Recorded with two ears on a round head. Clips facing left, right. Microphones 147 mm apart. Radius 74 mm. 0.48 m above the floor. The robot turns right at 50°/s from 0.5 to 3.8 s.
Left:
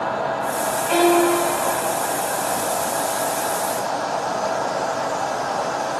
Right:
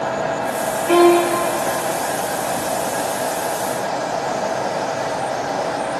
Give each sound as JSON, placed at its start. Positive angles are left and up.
{"t": 0.9, "sound": "a violin", "side_deg": -55, "distance_m": 5.0}